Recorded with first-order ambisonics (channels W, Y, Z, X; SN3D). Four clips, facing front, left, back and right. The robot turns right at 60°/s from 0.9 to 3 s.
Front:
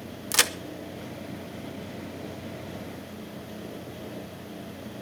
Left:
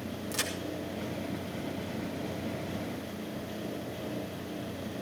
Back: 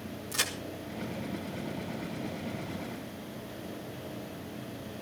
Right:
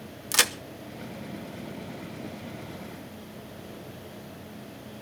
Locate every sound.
0.3 s a crack: 45° right, 1.0 m